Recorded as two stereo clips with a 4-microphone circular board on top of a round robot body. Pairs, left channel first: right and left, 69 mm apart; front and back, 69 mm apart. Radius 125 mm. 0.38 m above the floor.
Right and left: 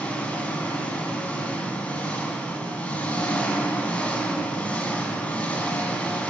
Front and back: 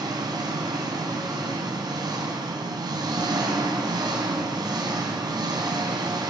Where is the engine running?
160° right, 3.5 m.